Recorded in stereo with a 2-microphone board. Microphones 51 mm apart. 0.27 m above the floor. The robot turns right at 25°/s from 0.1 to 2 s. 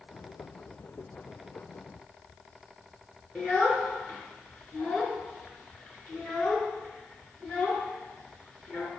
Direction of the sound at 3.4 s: 25° left (ahead or behind).